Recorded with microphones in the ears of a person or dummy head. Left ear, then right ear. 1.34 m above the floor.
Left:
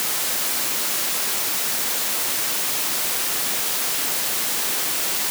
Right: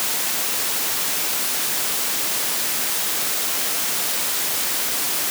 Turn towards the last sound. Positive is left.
No sound to turn to.